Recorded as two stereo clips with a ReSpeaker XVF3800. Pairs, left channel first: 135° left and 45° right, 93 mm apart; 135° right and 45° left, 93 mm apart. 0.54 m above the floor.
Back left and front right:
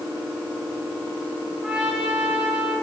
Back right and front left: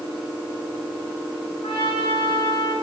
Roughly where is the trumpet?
Behind right.